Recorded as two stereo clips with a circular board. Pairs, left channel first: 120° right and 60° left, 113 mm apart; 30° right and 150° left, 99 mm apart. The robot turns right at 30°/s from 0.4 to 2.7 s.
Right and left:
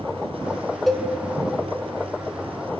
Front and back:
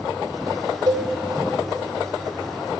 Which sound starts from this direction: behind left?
A cowbell, at 0.9 s.